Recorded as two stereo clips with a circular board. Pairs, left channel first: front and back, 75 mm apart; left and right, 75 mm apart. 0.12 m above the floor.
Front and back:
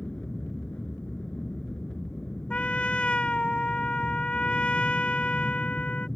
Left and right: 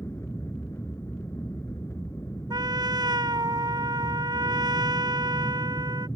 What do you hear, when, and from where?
0.0 s an aircraft: 70° left
2.5 s a trumpet: 75° right